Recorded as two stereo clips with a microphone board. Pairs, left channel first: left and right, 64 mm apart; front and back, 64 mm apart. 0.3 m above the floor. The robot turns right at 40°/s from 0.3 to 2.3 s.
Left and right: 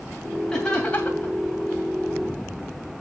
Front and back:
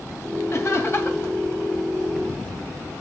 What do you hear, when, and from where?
0.5 s laughter: 15° left, 2.5 m; by 1.3 s 50° left, 2.5 m